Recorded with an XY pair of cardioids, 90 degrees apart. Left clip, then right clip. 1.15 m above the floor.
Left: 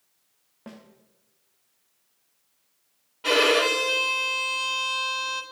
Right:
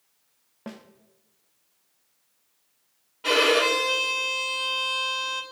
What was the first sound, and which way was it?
A snare drum, 35° right.